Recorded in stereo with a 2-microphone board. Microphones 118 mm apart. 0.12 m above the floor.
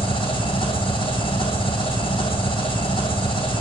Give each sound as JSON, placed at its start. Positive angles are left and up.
{"t": 0.0, "sound": "an engine running", "side_deg": 55, "distance_m": 1.3}